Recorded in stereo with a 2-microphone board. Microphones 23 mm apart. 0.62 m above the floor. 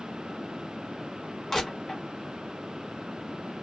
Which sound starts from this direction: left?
Crushing, at 1.5 s.